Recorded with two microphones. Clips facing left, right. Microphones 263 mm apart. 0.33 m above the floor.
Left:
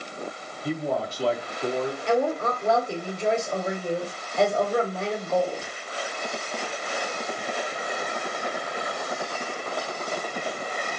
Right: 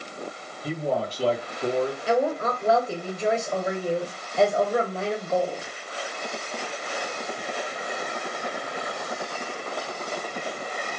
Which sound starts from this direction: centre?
A woman speaking, at 2.1 s.